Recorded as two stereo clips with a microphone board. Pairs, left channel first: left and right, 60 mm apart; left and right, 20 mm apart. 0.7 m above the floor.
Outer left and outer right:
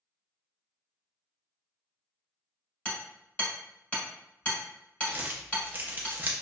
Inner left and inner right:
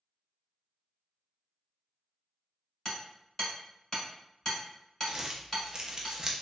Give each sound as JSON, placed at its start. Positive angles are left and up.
{"t": 2.9, "sound": "hammering", "side_deg": 20, "distance_m": 1.7}
{"t": 5.1, "sound": "crumpling", "side_deg": -30, "distance_m": 0.6}